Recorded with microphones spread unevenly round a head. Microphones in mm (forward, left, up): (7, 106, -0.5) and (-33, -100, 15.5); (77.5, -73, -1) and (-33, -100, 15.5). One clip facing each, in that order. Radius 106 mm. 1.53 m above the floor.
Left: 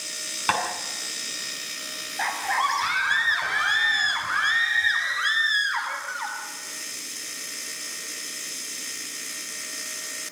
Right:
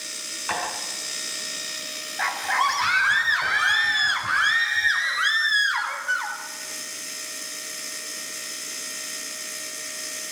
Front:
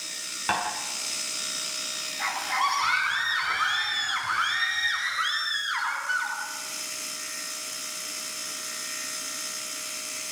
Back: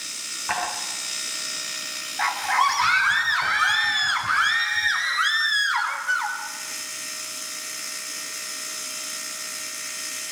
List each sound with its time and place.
0.5 s tapping: 55° left, 7 m
2.2 s a scream: straight behind, 9 m